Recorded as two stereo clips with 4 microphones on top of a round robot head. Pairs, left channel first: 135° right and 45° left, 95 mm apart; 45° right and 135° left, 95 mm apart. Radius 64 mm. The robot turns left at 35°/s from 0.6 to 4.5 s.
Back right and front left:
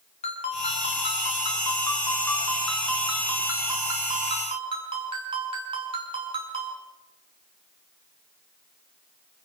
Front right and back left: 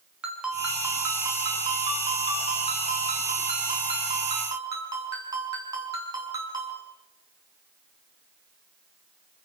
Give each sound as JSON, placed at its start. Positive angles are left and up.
{"t": 0.2, "sound": "a ringtone", "azimuth_deg": -145, "distance_m": 5.5}